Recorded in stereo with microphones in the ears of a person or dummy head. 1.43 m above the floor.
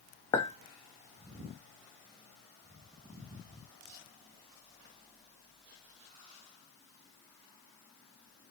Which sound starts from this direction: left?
A clink, at 0.3 s.